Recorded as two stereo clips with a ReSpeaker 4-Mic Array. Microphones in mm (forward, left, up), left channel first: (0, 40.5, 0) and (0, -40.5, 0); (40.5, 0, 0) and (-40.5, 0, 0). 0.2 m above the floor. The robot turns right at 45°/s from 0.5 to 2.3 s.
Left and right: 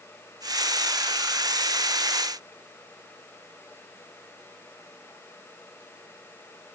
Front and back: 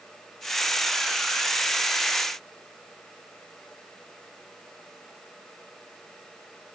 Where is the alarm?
No alarm in this recording.